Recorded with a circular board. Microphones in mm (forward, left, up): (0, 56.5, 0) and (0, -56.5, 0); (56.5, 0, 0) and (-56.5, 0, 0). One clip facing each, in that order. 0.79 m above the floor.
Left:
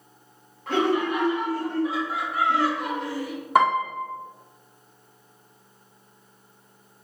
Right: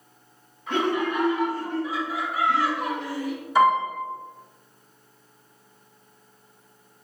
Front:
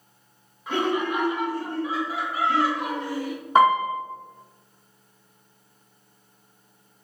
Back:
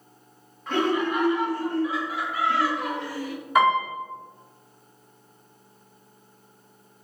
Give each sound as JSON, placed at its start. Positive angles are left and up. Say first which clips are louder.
{"t": 0.7, "sound": "laughter", "louder": "left 2 dB, back 1 dB", "azimuth_deg": 80, "distance_m": 1.9}
{"t": 3.5, "sound": "a piano", "louder": "right 1 dB, front 3 dB", "azimuth_deg": 60, "distance_m": 1.0}